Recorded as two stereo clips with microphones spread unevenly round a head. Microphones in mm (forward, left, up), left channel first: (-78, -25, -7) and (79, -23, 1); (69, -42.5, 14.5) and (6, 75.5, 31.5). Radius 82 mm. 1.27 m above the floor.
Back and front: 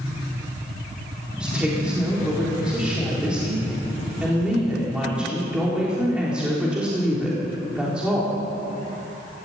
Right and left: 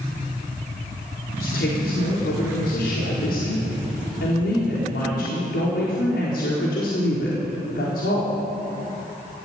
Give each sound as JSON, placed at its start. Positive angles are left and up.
{"t": 1.4, "sound": "a woman speaking", "azimuth_deg": -85, "distance_m": 4.0}